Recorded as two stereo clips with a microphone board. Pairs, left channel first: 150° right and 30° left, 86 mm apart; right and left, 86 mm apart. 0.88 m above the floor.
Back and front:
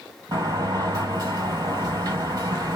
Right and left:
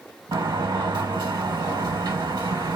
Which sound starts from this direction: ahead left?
A sliding door, at 0.3 s.